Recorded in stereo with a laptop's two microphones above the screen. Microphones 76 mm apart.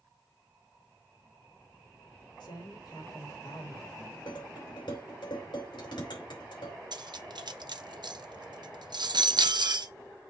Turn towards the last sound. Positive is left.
turn(degrees=-70)  # may be behind; listen again after turning